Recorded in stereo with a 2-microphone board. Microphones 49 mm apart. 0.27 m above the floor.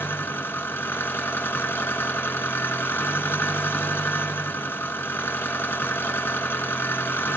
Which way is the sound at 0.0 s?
55° left (ahead or behind).